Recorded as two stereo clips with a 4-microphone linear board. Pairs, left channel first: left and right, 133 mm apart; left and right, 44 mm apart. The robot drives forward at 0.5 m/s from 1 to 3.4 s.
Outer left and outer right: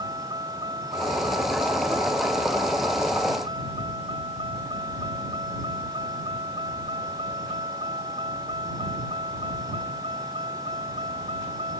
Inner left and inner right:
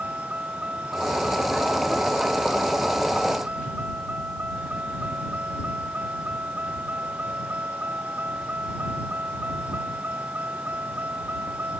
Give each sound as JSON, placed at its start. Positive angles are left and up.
{"t": 0.0, "sound": "a vehicle", "side_deg": -30}